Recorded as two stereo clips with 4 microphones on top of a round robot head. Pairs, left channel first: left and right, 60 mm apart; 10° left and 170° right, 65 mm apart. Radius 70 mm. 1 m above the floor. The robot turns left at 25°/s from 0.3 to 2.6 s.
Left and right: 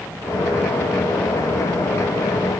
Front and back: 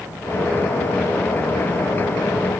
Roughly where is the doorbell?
No doorbell in this recording.